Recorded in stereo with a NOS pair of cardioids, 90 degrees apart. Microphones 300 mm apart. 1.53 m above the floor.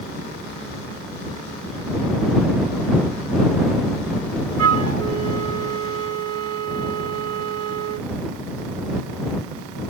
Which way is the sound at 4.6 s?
55° right.